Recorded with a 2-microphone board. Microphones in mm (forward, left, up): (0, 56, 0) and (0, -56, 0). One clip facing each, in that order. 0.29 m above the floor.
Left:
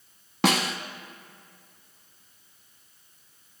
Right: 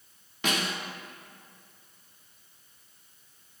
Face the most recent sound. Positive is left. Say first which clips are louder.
# left 7 dB
turn(degrees=80)